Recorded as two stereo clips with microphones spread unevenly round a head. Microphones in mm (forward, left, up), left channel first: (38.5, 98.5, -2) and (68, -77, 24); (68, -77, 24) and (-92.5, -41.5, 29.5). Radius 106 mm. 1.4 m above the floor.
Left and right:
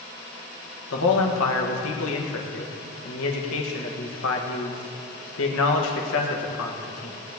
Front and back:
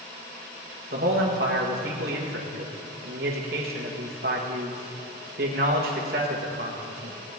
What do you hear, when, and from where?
0.9 s a man speaking: 115° left, 1.4 m